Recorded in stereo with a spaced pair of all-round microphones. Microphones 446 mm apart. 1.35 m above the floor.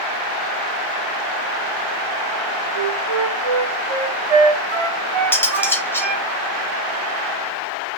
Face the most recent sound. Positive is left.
turn(degrees=5)  # may be behind; listen again after turning